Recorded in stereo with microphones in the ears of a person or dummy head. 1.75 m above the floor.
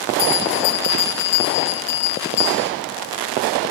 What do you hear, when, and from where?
0.2 s a bell: 60° left (ahead or behind), 1.2 m